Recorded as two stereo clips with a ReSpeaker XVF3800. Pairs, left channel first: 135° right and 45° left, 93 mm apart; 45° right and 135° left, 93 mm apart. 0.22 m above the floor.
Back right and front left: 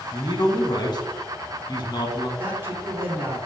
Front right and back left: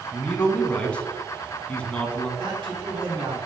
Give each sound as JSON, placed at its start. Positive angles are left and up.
{"t": 0.1, "sound": "a man speaking", "azimuth_deg": -120, "distance_m": 1.7}
{"t": 2.4, "sound": "a man speaking", "azimuth_deg": 105, "distance_m": 3.0}